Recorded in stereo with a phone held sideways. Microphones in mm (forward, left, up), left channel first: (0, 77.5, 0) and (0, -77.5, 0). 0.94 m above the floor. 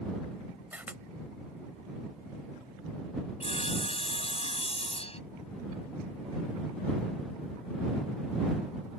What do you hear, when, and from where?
0.7 s a camera shutter: 10° right (ahead or behind)
3.4 s sawing: 40° left (ahead or behind)